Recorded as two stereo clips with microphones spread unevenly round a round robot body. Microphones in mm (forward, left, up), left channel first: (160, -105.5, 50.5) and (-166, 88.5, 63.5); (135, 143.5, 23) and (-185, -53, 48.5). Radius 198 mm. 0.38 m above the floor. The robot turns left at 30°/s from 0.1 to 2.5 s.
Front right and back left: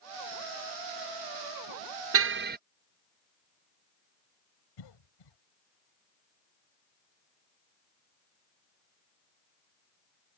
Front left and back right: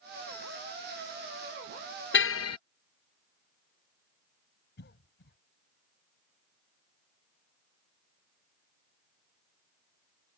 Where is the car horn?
95° left; by 2.6 s 80° left.